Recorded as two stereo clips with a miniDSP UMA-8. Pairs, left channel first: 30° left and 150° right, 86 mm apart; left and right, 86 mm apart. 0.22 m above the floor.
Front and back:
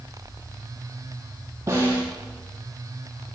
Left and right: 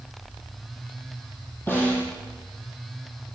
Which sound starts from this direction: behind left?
A snare drum, at 1.7 s.